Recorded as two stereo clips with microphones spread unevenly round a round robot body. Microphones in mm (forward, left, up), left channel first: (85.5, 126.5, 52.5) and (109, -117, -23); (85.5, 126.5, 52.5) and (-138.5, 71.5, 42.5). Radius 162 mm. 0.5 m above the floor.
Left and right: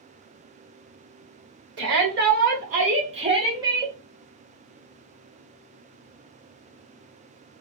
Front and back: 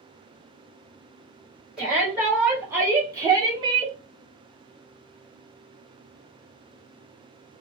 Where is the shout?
80° right, 2 m; by 4.0 s 125° right, 1.4 m.